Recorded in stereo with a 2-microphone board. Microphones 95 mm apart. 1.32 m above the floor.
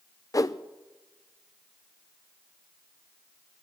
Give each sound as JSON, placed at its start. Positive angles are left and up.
{"t": 0.3, "sound": "a whoosh", "side_deg": 40, "distance_m": 0.5}